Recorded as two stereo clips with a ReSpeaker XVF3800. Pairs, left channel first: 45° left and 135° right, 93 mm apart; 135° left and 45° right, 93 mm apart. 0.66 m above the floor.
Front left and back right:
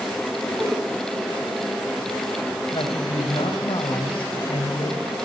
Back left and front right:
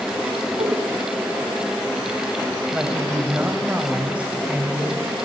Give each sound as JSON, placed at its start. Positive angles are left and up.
{"t": 0.6, "sound": "a whoosh", "azimuth_deg": -65, "distance_m": 1.6}
{"t": 2.7, "sound": "a woman speaking", "azimuth_deg": 30, "distance_m": 3.0}